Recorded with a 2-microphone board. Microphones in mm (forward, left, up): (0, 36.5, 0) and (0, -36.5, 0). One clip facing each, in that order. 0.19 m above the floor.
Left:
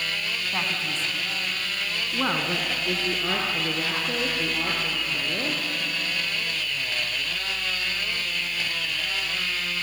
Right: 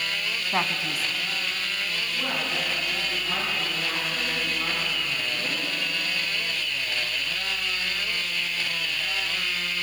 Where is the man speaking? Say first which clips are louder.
Right 4 dB; 30° right (ahead or behind), 1.9 m; by 5.6 s 75° left (ahead or behind), 7 m.